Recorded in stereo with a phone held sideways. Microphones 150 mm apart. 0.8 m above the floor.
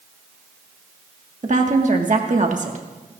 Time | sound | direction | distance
1.4 | a woman speaking | 55° right (ahead or behind) | 1.4 m